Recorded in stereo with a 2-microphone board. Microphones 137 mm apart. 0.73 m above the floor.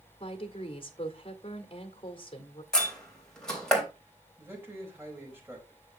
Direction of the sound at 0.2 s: 40° left (ahead or behind).